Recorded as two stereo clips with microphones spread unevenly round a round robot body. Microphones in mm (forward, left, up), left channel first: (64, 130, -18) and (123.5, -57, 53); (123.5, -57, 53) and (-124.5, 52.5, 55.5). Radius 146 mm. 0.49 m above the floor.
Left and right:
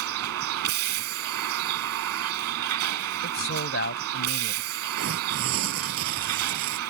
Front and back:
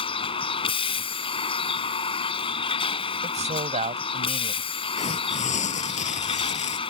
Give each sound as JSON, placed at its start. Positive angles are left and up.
{"t": 0.0, "sound": "a vehicle", "azimuth_deg": -95}
{"t": 3.2, "sound": "a man speaking", "azimuth_deg": 90}
{"t": 5.0, "sound": "tearing paper", "azimuth_deg": -90}